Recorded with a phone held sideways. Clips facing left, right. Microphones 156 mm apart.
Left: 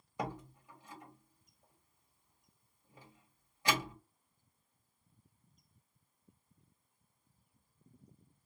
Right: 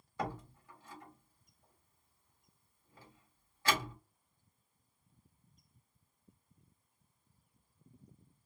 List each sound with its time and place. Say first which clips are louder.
0.2 s a door slam: right 1 dB; 20° left (ahead or behind), 1.3 m